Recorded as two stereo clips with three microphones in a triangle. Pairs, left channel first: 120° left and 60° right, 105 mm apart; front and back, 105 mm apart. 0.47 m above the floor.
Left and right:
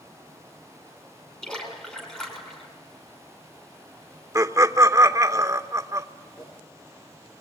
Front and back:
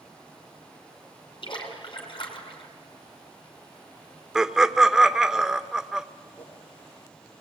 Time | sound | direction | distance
1.4 | a splash | 40° left | 5 m
4.3 | laughter | 100° right | 0.9 m
6.4 | a whoosh | 75° left | 6 m